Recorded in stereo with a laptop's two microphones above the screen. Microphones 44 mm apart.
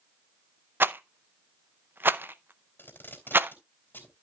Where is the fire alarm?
No fire alarm in this recording.